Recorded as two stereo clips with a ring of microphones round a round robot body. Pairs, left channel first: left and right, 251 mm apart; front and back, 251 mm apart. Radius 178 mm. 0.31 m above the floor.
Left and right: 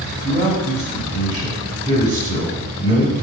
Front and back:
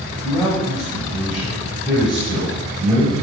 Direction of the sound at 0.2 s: 95° right.